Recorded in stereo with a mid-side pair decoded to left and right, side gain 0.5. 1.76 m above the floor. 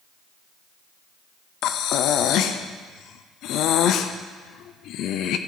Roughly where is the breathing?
Left.